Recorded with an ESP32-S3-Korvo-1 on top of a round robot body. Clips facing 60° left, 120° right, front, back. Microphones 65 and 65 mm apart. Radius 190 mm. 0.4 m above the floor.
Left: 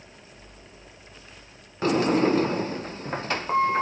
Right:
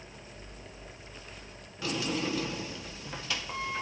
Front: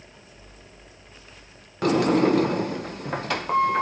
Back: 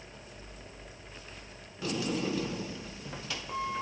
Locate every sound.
1.8 s a sliding door: 20° left, 0.6 m